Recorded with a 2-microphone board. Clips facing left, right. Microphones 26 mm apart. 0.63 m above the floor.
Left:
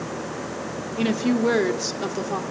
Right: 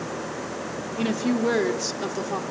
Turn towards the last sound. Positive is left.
turn(degrees=5)  # may be behind; listen again after turning